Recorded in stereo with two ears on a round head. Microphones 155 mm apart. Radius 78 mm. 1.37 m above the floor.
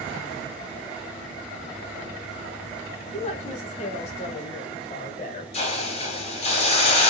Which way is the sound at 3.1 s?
40° left (ahead or behind).